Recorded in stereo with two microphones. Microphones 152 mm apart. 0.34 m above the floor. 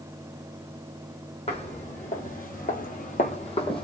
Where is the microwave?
I don't hear a microwave.